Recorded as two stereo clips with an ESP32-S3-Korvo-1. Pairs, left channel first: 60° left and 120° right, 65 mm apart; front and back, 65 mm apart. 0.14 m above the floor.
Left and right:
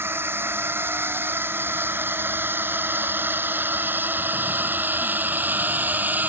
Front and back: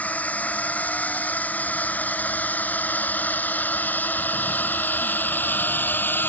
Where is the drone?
65° right; by 6.3 s 60° right.